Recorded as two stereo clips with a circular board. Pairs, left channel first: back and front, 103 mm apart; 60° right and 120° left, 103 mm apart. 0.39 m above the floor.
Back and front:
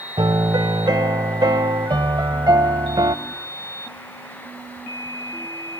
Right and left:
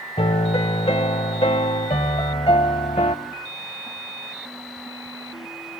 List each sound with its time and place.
0.2 s a piano: 45° right, 0.7 m